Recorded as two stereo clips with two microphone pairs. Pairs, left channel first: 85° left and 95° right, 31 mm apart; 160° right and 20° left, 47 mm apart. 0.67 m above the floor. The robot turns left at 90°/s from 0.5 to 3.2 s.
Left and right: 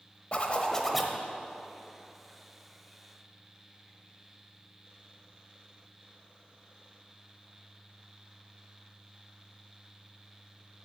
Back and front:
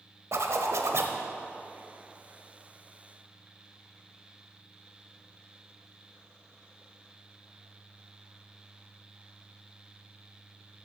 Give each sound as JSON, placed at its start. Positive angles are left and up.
{"t": 0.3, "sound": "a zipper", "azimuth_deg": 35, "distance_m": 0.9}